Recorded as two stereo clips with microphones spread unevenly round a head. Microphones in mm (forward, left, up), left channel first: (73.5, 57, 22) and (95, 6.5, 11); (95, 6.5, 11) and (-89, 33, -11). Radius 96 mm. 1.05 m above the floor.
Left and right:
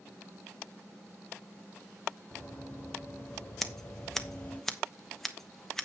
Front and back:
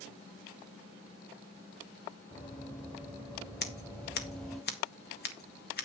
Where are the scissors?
20° left, 1.4 m.